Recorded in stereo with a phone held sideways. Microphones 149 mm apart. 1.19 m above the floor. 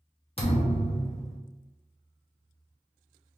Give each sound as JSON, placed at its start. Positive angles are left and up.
{"t": 0.4, "sound": "a thud", "side_deg": 40, "distance_m": 0.8}